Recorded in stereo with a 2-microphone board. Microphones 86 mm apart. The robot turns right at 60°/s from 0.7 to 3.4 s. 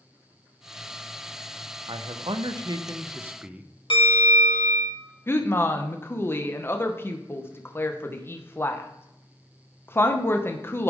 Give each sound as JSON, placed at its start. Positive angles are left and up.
{"t": 1.9, "sound": "a man speaking", "azimuth_deg": -105, "distance_m": 0.6}
{"t": 3.9, "sound": "a bell", "side_deg": 80, "distance_m": 2.0}
{"t": 5.3, "sound": "a woman speaking", "side_deg": 25, "distance_m": 0.6}